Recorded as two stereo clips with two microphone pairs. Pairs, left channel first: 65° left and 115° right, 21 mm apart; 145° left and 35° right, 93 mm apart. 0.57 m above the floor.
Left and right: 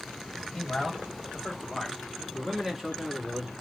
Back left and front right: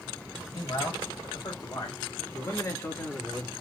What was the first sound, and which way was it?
A man speaking, 135° left.